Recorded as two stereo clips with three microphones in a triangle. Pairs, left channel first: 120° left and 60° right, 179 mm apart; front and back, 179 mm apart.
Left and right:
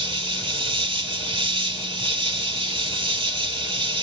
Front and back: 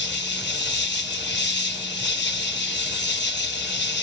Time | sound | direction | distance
0.0 | an insect | straight ahead | 1.1 m